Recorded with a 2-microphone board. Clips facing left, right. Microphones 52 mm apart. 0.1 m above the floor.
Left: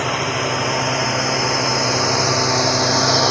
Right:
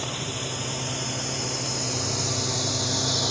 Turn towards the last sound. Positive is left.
turn(degrees=65)  # may be behind; listen again after turning